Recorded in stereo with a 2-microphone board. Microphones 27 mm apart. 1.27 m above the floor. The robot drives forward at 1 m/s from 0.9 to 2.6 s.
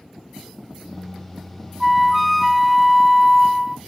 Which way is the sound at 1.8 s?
Centre (ahead or behind).